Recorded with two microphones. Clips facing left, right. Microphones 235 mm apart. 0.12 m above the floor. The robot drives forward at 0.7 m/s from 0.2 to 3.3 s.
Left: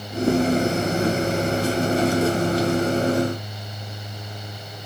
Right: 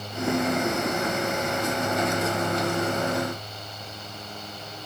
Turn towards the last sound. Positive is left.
No sound to turn to.